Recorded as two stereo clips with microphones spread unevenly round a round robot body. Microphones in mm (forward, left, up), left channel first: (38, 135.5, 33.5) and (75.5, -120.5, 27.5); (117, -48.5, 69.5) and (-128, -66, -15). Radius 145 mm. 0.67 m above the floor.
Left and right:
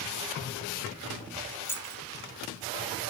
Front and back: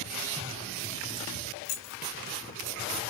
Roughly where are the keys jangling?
Ahead.